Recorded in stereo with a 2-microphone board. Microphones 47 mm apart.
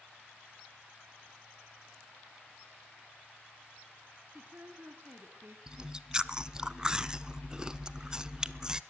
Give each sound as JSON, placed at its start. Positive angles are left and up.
{"t": 4.3, "sound": "a woman speaking", "side_deg": -40, "distance_m": 1.6}
{"t": 5.7, "sound": "chewing", "side_deg": -15, "distance_m": 0.7}